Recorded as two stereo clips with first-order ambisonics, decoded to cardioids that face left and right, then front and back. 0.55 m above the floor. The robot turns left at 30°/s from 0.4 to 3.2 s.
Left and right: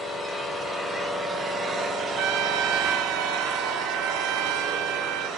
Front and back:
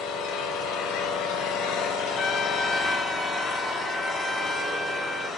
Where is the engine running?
20° left, 2.5 m; by 5.4 s 60° right, 2.5 m.